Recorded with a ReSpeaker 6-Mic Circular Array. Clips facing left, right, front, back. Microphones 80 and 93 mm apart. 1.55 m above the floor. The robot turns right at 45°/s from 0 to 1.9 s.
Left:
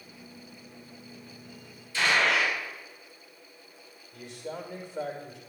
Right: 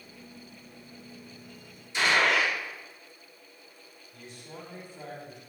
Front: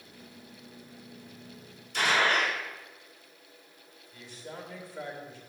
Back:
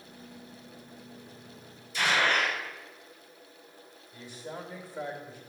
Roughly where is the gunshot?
Ahead right.